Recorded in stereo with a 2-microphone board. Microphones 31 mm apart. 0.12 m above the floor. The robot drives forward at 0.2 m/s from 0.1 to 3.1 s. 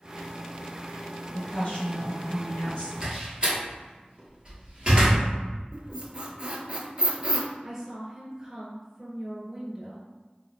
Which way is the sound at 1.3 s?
40° left (ahead or behind).